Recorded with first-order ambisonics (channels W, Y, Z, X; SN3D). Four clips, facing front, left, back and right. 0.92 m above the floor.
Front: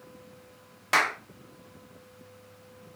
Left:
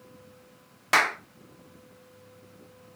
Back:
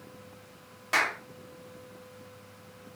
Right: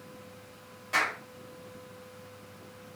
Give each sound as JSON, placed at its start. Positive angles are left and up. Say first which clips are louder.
{"t": 0.9, "sound": "a clap", "louder": "left 6 dB, front 2 dB", "azimuth_deg": 70, "distance_m": 0.5}